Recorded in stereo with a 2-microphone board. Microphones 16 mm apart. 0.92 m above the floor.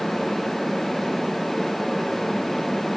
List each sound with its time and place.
Only background noise.